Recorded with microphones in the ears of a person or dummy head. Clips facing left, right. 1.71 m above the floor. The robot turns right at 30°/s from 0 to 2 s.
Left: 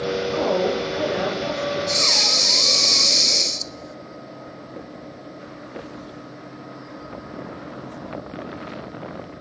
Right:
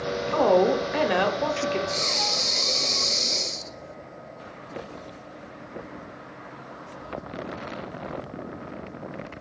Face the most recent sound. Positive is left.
turn(degrees=70)  # may be behind; listen again after turning